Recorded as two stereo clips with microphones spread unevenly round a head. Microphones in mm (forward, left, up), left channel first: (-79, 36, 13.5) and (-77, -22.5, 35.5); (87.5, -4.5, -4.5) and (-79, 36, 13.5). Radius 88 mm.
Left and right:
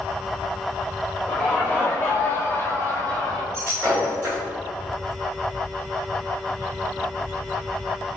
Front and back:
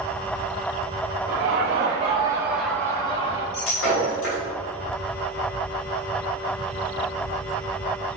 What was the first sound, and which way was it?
Laughter, 140° left.